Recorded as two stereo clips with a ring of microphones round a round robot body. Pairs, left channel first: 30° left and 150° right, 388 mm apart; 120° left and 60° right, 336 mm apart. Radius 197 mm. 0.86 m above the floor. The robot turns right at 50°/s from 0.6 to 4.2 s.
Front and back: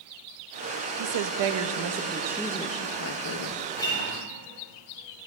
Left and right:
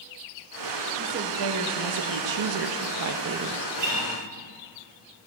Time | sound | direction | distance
1.0 | a woman speaking | 130° right | 0.6 m
3.8 | a guitar | 55° right | 3 m